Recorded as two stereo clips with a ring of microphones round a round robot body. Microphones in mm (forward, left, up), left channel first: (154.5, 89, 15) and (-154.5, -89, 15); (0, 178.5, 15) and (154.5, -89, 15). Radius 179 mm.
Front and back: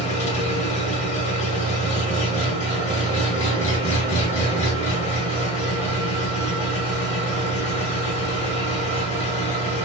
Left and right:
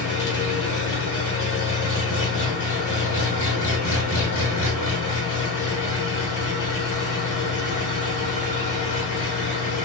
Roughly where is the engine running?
Left.